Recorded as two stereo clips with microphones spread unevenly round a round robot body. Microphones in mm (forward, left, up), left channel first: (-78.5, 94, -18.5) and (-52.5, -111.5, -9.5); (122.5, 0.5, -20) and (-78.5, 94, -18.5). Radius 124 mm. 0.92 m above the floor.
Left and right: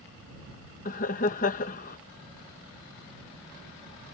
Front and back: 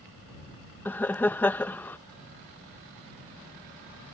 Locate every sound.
0.8 s laughter: 55° left